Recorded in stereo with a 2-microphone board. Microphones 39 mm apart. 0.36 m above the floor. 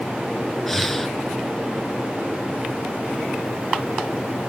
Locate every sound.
0.7 s breathing: 5° left (ahead or behind), 1.6 m